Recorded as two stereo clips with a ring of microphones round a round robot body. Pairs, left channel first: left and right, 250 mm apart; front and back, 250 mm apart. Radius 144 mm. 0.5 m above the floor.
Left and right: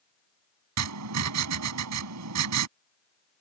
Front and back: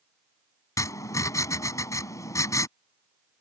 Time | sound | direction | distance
0.8 | writing | 80° right | ?